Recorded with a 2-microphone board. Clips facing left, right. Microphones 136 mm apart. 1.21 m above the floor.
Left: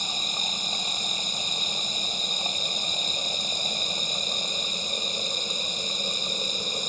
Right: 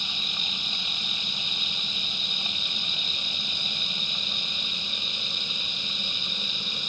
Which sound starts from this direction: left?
Running water, at 0.0 s.